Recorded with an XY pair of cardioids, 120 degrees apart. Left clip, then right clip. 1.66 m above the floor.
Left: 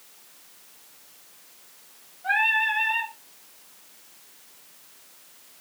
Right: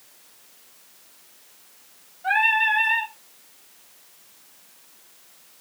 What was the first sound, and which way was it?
Singing, 40° right.